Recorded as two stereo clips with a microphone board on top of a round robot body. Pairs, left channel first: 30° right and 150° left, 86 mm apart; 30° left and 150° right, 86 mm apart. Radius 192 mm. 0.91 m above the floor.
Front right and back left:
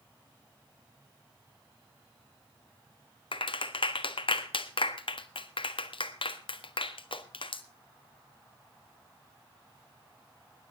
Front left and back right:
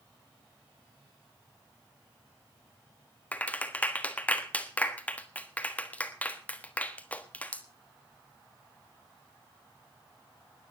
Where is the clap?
45° right, 1.6 m.